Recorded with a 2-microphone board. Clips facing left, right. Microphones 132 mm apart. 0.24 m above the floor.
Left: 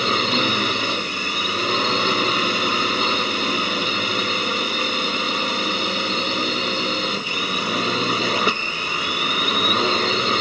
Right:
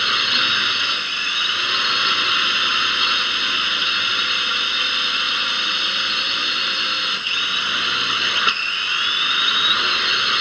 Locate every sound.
0.0 s a drone: 40° left (ahead or behind)